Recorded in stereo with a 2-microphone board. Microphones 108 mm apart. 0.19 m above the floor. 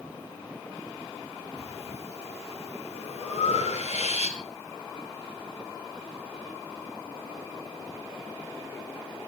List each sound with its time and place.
1.6 s breathing: 75° left (ahead or behind), 2.5 m